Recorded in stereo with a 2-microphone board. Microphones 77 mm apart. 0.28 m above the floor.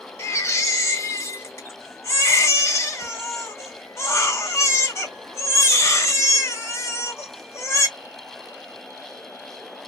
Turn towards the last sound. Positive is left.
turn(degrees=35)  # may be behind; listen again after turning